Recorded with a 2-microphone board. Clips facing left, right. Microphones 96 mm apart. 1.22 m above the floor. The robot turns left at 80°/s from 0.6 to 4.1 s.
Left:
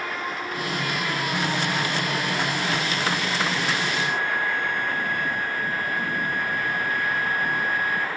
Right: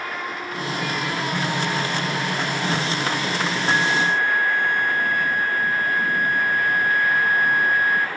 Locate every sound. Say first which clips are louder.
3.7 s a flute: right 5 dB; 80° right, 0.5 m; by 8.1 s 115° right, 0.5 m